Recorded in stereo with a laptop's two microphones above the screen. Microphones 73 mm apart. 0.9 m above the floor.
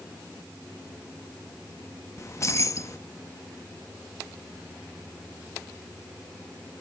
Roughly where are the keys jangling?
Left.